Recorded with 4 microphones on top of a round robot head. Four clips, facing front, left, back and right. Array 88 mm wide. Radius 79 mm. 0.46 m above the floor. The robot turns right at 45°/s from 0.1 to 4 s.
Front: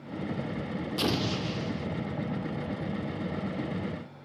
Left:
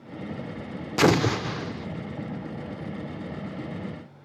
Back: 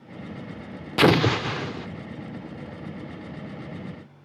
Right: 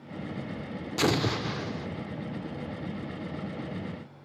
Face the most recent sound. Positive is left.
turn(degrees=-75)